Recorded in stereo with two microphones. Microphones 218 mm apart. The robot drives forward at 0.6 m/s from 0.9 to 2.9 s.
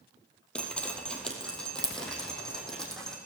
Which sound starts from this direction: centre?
Dripping, at 0.6 s.